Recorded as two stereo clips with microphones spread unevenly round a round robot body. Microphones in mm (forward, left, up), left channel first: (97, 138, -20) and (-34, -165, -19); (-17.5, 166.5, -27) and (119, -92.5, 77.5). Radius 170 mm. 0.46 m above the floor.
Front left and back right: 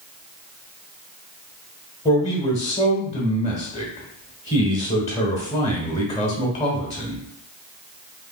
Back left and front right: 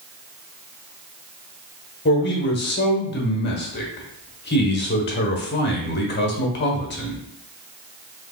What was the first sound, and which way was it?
A man speaking, 135° left.